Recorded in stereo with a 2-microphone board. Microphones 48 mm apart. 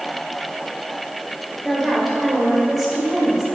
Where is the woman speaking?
Centre (ahead or behind), 2 m.